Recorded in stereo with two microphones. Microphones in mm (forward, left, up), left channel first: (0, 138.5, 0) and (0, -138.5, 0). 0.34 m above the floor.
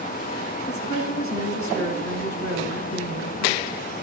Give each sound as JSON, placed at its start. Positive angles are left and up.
{"t": 0.7, "sound": "a woman speaking", "side_deg": 75, "distance_m": 4.5}